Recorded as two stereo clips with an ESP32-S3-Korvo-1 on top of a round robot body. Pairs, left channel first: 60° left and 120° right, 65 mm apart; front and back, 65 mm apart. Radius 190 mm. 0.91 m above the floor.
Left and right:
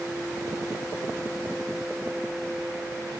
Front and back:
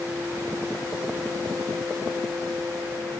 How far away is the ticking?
I don't hear ticking.